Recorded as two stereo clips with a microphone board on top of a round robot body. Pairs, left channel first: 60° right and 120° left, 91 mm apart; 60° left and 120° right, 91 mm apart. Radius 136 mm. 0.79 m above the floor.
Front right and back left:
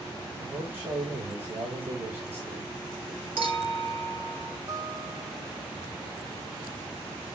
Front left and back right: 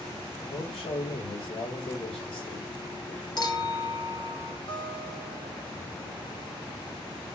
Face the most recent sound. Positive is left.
turn(degrees=70)